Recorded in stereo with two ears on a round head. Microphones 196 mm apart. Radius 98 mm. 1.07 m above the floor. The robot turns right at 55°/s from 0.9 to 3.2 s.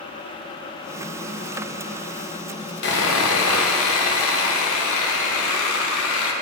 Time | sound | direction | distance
2.8 | sawing | 45° left (ahead or behind) | 0.8 m